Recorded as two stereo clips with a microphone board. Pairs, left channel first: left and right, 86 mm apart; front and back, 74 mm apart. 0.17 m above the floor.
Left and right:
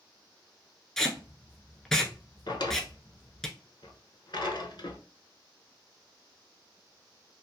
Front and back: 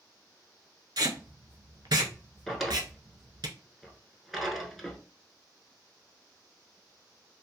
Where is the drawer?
90° left, 0.6 m.